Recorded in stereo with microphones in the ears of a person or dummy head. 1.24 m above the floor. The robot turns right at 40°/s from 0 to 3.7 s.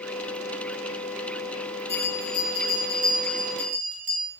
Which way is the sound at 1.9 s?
160° left.